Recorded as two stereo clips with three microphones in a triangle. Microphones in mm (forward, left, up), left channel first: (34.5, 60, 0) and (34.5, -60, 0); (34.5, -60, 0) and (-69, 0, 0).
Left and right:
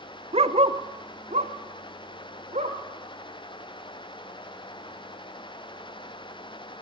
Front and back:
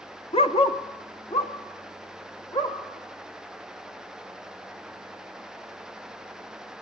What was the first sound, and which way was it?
A dog barking, 60° right.